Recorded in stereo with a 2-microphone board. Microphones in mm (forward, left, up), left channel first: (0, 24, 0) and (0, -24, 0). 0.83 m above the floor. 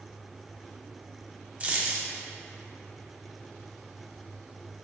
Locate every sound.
1.6 s a dropped coin: 30° right (ahead or behind), 0.6 m